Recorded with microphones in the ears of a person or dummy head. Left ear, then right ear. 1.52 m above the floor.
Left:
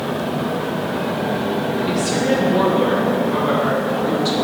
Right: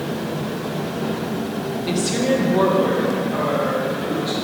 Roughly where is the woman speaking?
Right.